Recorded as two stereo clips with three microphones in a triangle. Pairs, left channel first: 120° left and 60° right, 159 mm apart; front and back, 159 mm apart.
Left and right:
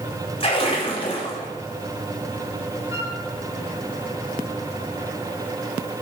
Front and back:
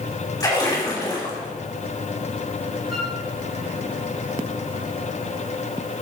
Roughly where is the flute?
Ahead.